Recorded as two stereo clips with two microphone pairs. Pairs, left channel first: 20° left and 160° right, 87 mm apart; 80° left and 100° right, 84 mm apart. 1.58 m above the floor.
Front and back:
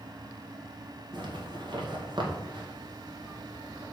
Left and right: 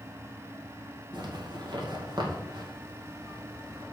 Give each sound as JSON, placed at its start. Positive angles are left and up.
{"t": 1.1, "sound": "a zipper", "azimuth_deg": -130, "distance_m": 2.5}